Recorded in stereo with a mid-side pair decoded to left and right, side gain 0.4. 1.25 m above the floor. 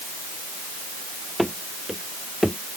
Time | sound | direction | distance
1.4 | running footsteps | straight ahead | ?